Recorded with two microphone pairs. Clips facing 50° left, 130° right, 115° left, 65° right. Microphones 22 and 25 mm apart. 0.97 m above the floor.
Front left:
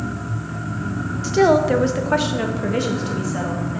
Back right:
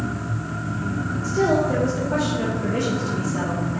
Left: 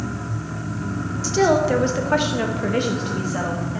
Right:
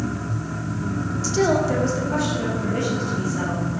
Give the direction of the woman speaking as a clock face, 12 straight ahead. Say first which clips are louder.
Front left 5 dB, left 3 dB; 11 o'clock.